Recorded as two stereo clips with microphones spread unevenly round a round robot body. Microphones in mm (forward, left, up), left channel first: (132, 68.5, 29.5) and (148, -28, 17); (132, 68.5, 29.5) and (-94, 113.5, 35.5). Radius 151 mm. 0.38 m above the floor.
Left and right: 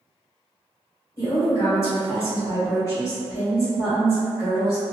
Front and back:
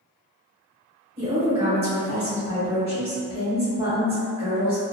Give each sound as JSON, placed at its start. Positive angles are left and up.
{"t": 1.2, "sound": "a woman speaking", "azimuth_deg": 135, "distance_m": 1.5}